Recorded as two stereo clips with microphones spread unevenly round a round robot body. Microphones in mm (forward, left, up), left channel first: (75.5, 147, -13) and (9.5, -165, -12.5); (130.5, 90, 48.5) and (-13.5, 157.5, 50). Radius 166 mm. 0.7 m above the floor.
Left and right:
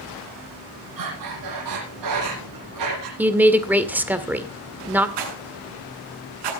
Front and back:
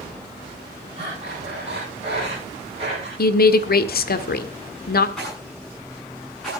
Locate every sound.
1.0 s breathing: 135° right, 8 m
3.2 s a woman speaking: 20° right, 1.8 m
5.2 s a rattle: 115° right, 7.5 m